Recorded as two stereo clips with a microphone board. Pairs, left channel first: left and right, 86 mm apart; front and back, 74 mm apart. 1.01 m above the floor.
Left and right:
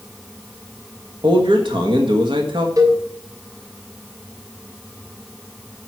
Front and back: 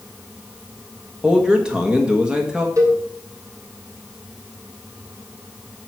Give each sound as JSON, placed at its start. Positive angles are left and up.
{"t": 1.2, "sound": "a man speaking", "azimuth_deg": -100, "distance_m": 1.7}
{"t": 2.8, "sound": "a cowbell", "azimuth_deg": -135, "distance_m": 2.5}